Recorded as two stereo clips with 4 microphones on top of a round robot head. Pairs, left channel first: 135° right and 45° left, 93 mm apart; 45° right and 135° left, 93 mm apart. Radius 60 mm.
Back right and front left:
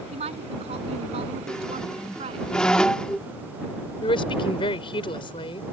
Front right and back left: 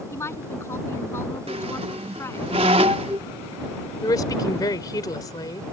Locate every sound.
0.1 s a woman speaking: 20° left
1.5 s a squeak: 145° left
4.0 s a woman speaking: 100° right